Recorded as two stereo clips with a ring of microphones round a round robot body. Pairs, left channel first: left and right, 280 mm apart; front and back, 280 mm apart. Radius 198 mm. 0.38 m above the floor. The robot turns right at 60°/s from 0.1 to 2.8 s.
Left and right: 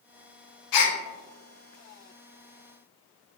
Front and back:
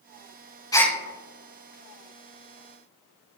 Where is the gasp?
80° left, 0.6 m; by 1.0 s 95° left, 0.6 m.